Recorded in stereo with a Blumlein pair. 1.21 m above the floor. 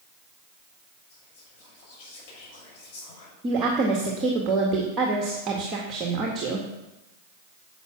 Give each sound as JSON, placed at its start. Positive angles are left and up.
{"t": 1.1, "sound": "whispering", "azimuth_deg": 40, "distance_m": 6.5}
{"t": 3.4, "sound": "a woman speaking", "azimuth_deg": -25, "distance_m": 1.9}